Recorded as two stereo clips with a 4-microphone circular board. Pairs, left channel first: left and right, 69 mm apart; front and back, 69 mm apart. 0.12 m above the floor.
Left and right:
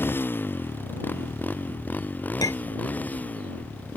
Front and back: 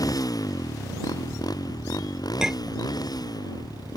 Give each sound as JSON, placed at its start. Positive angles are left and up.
{"t": 0.0, "sound": "a motorcycle", "azimuth_deg": 30}
{"t": 2.4, "sound": "a clink", "azimuth_deg": 100}